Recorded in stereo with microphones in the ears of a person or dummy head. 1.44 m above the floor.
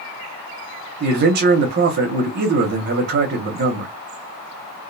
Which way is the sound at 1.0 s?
60° right (ahead or behind).